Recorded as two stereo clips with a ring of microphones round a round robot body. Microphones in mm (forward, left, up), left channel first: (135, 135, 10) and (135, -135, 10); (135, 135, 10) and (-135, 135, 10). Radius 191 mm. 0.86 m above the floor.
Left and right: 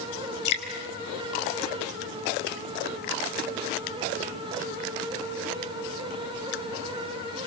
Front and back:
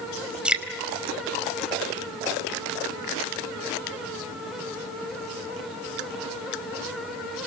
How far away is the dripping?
About 4.5 m.